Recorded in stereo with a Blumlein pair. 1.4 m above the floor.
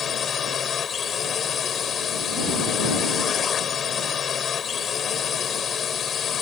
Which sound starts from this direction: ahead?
A drone, at 0.0 s.